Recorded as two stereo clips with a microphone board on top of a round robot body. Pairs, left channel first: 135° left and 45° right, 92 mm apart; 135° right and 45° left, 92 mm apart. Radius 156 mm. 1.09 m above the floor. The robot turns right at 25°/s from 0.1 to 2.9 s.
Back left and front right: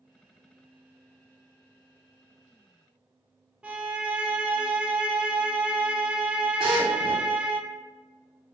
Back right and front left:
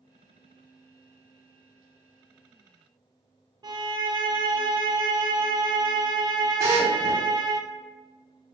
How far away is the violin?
About 0.6 m.